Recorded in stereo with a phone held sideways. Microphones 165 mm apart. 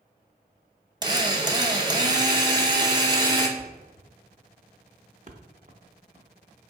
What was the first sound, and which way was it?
A drill, 25° right (ahead or behind).